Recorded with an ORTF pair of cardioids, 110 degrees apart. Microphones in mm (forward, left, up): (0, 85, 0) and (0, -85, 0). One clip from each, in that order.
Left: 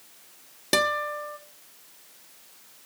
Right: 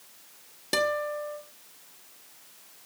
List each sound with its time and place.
0.7 s a guitar: 30° left, 1.4 m